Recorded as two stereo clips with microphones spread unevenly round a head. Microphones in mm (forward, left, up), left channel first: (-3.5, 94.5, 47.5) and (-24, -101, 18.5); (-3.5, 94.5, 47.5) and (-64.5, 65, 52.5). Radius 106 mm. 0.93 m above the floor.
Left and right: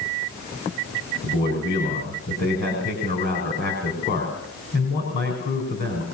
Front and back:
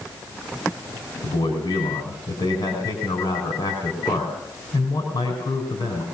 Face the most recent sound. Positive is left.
turn(degrees=40)